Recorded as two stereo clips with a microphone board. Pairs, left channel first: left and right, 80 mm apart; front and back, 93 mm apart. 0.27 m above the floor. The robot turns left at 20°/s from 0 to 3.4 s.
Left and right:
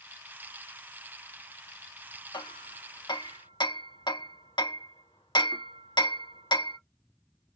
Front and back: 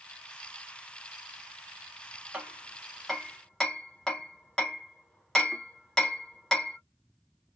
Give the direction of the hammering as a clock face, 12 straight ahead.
9 o'clock.